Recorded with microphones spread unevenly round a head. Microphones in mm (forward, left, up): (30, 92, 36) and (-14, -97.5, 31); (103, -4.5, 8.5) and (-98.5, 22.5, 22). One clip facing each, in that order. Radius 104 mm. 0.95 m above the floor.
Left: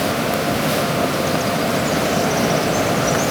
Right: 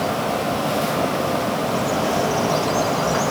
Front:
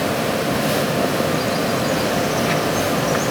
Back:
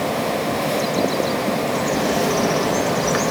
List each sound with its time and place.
1.7 s a bird: 145° left, 1.4 m